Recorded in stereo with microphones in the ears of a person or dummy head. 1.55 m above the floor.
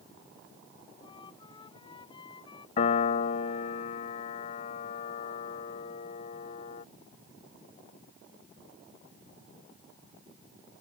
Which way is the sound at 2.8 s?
45° left (ahead or behind).